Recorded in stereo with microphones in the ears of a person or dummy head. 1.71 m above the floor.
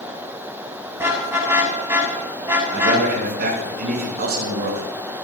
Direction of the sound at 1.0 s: 15° right (ahead or behind).